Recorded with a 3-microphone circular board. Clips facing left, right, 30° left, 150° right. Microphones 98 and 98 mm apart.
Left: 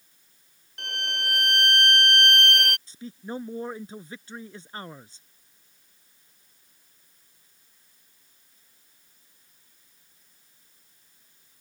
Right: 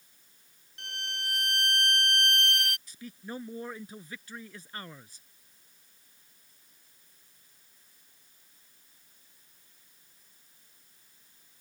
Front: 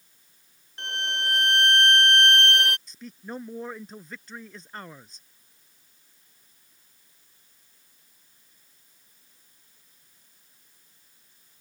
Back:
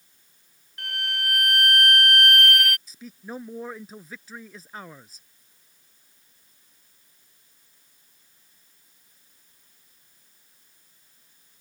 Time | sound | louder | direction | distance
0.8 | a violin | left 7 dB, front 1 dB | 90° left | ?
2.9 | a man speaking | left 5 dB, even | 125° left | ?